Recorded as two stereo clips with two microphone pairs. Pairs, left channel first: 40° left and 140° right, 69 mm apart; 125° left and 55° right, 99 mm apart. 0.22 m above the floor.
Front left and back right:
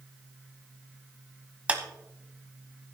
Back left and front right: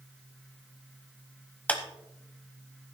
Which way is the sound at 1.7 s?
175° left.